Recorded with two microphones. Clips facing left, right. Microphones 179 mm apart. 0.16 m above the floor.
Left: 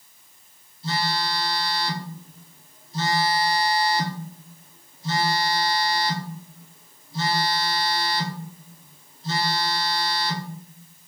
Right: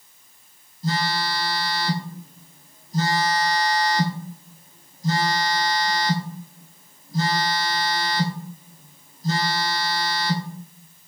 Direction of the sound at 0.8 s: 50° right (ahead or behind).